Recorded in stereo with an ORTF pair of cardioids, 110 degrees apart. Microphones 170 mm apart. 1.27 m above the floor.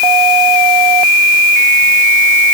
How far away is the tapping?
No tapping in this recording.